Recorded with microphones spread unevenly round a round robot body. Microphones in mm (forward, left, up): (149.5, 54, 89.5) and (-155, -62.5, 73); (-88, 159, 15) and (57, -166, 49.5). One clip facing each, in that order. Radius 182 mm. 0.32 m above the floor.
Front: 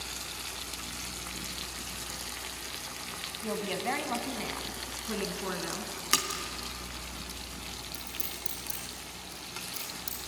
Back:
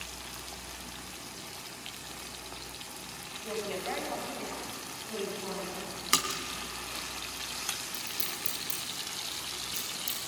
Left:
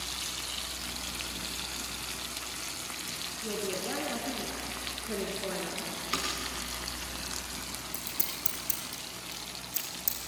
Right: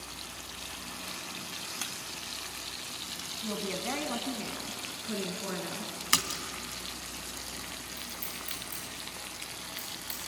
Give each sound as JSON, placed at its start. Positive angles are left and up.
{"t": 3.4, "sound": "a woman speaking", "azimuth_deg": -5, "distance_m": 2.5}
{"t": 6.1, "sound": "a splash", "azimuth_deg": -70, "distance_m": 2.0}
{"t": 7.9, "sound": "scissors", "azimuth_deg": 115, "distance_m": 8.0}